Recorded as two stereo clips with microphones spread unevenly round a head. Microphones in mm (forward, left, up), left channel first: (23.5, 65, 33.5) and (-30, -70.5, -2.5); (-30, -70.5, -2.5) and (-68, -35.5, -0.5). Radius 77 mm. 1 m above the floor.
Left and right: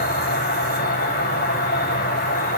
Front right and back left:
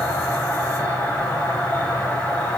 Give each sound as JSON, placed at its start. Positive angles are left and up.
{"t": 0.0, "sound": "an insect", "azimuth_deg": 35, "distance_m": 7.5}